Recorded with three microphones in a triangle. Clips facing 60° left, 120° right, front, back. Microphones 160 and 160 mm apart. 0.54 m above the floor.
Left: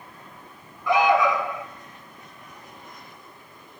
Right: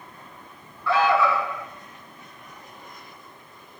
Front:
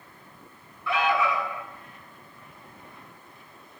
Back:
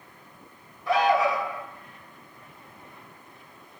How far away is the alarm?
About 3 m.